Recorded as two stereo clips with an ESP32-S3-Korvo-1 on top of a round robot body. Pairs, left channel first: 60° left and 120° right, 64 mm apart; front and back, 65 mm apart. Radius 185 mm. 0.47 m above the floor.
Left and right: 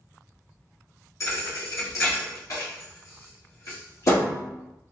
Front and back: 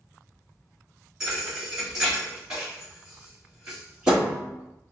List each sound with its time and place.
1.2 s a thud: 100° left, 1.3 m